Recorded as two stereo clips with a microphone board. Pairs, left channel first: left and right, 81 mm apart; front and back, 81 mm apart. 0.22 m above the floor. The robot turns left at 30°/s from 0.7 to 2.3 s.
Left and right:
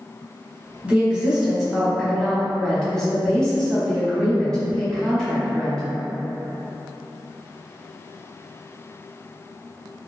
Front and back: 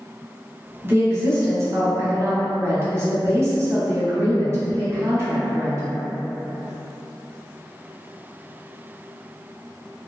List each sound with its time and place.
0.8 s a woman speaking: 150° right, 1.1 m; by 5.8 s 165° left, 1.1 m